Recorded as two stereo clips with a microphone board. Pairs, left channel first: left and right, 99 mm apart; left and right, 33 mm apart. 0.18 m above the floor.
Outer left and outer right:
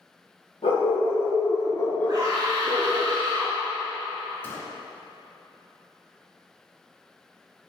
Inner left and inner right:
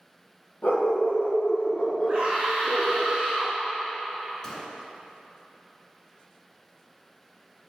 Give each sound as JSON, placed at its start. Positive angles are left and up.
{"t": 0.6, "sound": "a dog barking", "side_deg": 75, "distance_m": 2.0}
{"t": 2.1, "sound": "a scream", "side_deg": -40, "distance_m": 2.0}
{"t": 4.4, "sound": "a gunshot", "side_deg": 25, "distance_m": 0.9}